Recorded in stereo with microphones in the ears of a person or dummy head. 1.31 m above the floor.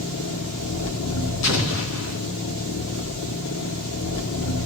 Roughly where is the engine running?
Left.